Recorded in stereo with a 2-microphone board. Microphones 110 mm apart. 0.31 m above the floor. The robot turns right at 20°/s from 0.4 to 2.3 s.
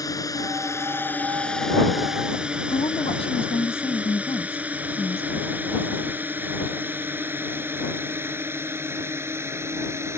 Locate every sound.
0.0 s a drone: 35° left (ahead or behind); by 10.2 s 25° right (ahead or behind)
2.7 s a woman speaking: 60° left (ahead or behind)